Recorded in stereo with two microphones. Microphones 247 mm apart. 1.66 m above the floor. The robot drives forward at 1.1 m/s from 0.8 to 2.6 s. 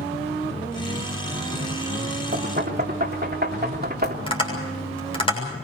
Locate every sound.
2.3 s knocking: 45° right (ahead or behind), 3 m; by 4.2 s 40° right (ahead or behind), 3 m
4.3 s tapping: 25° left (ahead or behind), 7 m